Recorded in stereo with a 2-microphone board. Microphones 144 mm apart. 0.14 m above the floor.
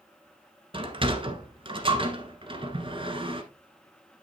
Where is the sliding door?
40° right (ahead or behind), 1.2 m.